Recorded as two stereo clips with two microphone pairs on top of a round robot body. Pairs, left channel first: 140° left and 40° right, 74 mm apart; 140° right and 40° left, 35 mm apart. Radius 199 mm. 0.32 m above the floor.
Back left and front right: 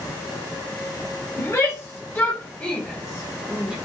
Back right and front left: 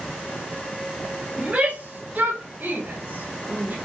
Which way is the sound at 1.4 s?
90° left.